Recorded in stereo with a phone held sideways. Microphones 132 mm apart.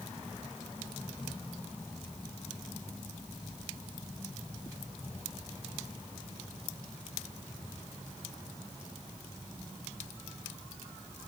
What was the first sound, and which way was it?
Only background noise.